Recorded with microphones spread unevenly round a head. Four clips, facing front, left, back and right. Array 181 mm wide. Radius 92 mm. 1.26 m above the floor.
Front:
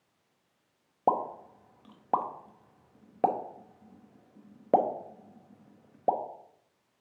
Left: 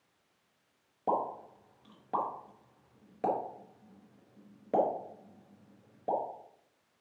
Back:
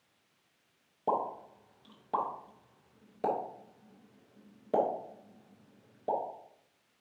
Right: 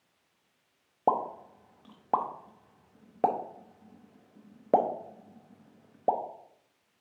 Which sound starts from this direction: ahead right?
A pop, at 1.1 s.